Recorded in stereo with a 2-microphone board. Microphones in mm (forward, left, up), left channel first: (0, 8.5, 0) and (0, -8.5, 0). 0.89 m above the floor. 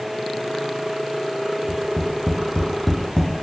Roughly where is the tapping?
Left.